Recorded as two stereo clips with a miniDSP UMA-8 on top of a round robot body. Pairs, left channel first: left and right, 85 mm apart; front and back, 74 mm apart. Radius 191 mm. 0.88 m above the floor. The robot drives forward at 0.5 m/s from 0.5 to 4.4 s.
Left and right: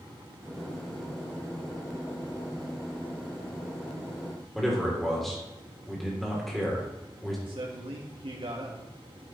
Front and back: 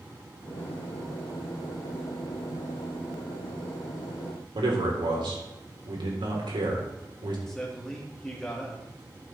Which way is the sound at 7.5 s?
85° right.